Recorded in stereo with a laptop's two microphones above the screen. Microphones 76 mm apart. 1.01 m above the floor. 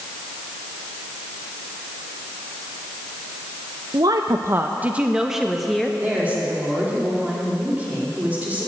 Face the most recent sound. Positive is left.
turn(degrees=-20)  # may be behind; listen again after turning